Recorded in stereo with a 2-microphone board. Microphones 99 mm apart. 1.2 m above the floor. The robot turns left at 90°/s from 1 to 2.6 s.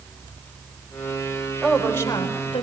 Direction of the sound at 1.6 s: 170° right.